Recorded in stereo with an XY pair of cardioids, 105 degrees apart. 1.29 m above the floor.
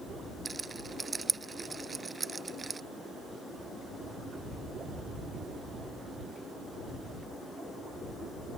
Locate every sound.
0.5 s a rattle: 25° right